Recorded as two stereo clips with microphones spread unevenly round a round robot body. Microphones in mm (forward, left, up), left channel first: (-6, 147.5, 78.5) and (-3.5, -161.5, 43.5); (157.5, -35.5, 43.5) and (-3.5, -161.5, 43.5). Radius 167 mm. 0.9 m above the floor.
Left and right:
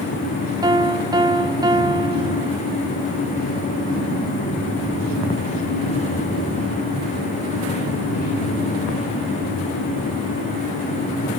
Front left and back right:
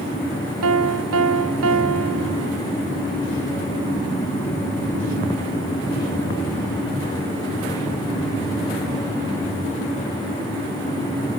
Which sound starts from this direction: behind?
A piano, at 0.6 s.